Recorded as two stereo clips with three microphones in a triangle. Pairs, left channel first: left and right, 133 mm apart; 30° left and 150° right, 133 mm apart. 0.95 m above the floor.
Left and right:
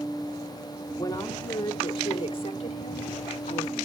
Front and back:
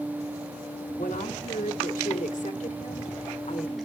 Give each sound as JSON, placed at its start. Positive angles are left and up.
{"t": 1.0, "sound": "a woman speaking", "azimuth_deg": 25, "distance_m": 2.0}